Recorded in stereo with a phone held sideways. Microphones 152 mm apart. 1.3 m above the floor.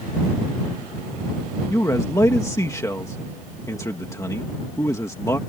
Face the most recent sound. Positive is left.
turn(degrees=20)  # may be behind; listen again after turning